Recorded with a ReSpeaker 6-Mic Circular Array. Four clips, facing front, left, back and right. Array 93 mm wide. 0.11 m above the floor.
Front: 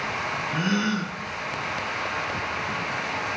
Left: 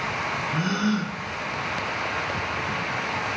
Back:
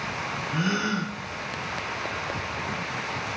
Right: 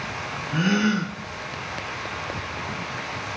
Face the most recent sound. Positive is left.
turn(degrees=-80)